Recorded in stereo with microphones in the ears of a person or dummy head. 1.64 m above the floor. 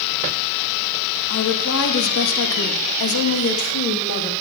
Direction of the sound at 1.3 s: 65° left (ahead or behind).